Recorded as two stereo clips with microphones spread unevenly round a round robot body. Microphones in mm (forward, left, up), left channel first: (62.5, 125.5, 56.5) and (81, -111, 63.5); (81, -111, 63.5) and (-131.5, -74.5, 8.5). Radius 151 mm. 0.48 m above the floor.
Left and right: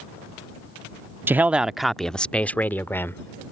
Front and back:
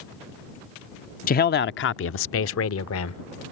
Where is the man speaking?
15° right; by 3.4 s 15° left.